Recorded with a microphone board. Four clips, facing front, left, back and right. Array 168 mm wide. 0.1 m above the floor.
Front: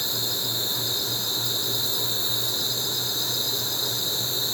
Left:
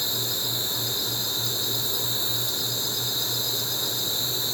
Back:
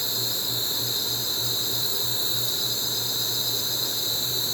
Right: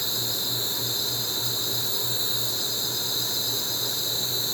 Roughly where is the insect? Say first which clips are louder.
Left 1 dB, front 2 dB; ahead left.